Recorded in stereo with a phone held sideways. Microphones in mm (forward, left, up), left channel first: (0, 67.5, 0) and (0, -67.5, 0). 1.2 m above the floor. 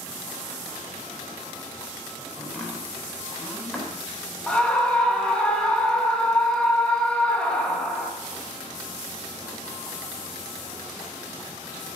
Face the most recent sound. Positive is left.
turn(degrees=5)  # may be behind; listen again after turning